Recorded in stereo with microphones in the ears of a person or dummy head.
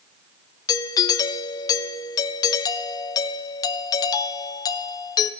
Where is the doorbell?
20° left (ahead or behind), 0.9 m.